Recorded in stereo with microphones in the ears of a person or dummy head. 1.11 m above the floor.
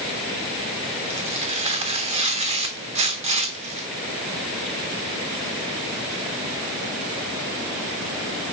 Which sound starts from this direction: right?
Tearing paper, at 1.1 s.